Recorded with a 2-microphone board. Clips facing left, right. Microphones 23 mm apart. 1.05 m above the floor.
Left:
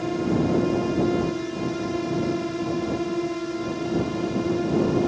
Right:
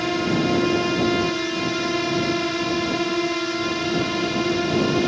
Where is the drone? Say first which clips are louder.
Right 2 dB; 60° right (ahead or behind); by 5.1 s 65° right (ahead or behind).